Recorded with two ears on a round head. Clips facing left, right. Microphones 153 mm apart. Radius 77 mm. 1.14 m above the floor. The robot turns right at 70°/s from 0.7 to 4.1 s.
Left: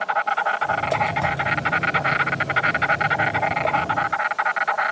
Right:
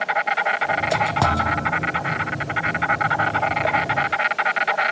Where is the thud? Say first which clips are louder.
Right 3 dB; 100° right; by 1.8 s 60° right.